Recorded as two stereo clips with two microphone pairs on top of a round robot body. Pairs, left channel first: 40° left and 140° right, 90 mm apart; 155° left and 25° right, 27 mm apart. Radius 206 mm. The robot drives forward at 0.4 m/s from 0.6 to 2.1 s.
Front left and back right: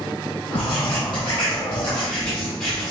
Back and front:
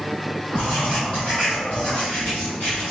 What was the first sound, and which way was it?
Writing, 55° left.